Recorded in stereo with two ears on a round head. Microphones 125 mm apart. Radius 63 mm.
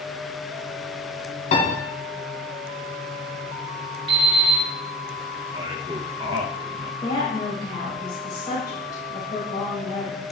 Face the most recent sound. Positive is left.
turn(degrees=30)  # may be behind; listen again after turning